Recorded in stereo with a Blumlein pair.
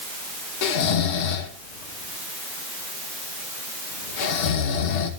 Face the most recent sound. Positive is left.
turn(degrees=50)